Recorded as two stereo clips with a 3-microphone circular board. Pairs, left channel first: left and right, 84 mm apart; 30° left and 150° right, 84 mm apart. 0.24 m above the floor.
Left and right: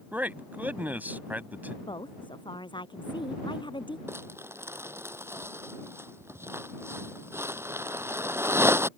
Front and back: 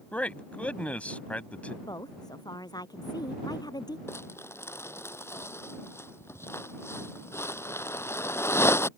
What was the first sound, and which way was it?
A man speaking, 35° right.